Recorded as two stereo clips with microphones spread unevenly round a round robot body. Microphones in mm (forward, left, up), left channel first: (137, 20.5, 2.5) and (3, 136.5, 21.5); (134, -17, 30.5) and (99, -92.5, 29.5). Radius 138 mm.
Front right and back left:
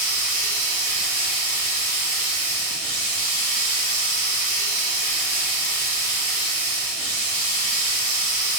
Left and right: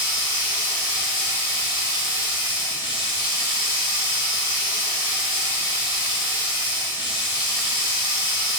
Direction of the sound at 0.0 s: 175° left.